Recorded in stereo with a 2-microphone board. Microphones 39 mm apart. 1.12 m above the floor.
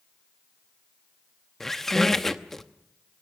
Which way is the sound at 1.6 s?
10° left (ahead or behind).